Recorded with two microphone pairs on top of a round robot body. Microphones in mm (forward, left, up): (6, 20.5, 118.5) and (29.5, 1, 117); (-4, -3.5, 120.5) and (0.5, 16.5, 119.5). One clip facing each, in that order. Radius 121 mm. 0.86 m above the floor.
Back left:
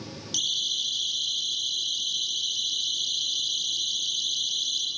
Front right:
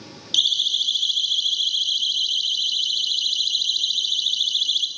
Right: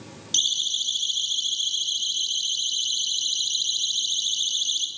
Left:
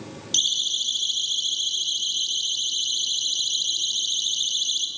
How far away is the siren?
About 9 m.